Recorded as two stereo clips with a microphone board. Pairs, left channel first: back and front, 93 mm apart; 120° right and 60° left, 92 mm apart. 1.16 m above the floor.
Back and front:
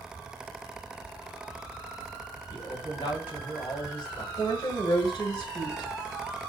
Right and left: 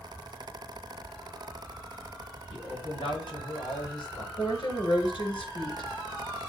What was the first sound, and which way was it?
A man speaking, 150° right.